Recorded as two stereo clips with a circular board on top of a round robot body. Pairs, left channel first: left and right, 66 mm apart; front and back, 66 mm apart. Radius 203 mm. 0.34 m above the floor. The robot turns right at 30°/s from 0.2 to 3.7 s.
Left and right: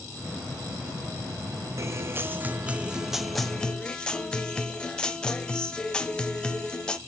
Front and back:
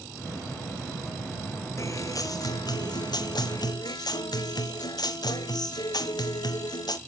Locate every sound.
1.8 s a guitar: 45° right, 0.9 m; by 7.0 s 15° left, 0.9 m